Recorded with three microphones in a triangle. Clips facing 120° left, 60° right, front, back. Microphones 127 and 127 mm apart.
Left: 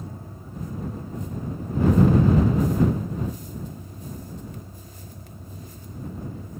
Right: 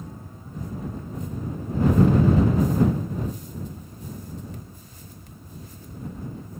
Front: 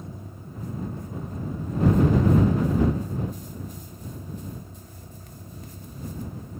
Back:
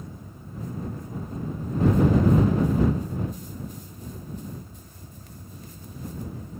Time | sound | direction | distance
0.0 | a vehicle | 65° left | ?